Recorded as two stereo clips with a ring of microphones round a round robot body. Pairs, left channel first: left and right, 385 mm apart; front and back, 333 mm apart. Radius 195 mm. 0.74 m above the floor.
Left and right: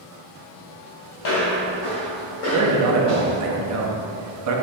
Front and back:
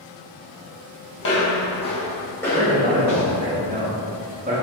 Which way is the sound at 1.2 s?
45° left.